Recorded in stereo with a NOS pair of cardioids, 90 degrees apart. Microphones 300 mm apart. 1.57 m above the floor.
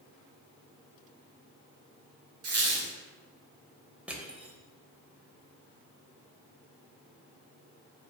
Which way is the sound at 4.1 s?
5° right.